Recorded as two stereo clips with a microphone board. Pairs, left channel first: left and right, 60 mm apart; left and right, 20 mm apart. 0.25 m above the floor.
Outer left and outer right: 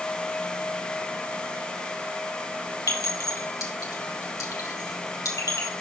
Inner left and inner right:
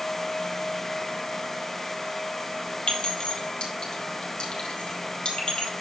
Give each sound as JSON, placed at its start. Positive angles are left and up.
{"t": 2.9, "sound": "a clink", "side_deg": 65, "distance_m": 4.5}